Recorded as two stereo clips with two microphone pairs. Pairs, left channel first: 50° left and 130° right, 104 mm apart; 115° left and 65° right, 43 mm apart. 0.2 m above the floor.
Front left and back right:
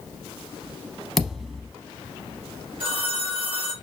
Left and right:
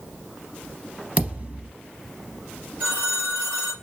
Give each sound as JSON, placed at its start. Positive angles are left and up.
{"t": 1.2, "sound": "a thud", "azimuth_deg": -45, "distance_m": 0.6}
{"t": 2.8, "sound": "a phone ringing", "azimuth_deg": -115, "distance_m": 2.0}